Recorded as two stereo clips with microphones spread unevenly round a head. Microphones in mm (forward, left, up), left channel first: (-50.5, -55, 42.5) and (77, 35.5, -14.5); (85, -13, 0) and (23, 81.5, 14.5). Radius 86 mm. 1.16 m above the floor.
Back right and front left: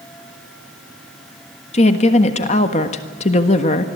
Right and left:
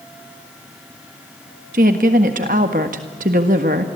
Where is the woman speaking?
160° left, 1.5 m.